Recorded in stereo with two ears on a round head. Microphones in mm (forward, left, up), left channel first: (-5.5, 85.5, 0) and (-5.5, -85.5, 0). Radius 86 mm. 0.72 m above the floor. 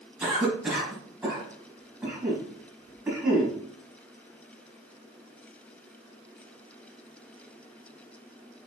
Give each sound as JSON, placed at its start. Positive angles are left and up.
{"t": 0.2, "sound": "a cough", "side_deg": -10, "distance_m": 5.5}